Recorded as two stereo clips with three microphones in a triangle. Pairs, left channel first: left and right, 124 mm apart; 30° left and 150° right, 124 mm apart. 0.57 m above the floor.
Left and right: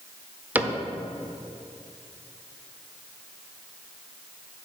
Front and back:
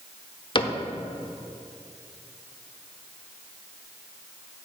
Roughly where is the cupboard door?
Ahead.